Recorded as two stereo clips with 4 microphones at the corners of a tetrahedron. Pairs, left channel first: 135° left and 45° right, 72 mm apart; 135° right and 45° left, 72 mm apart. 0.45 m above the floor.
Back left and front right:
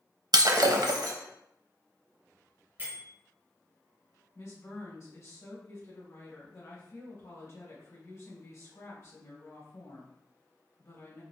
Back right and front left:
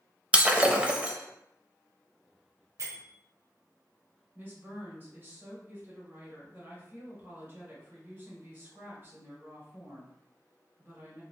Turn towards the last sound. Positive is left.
turn(degrees=100)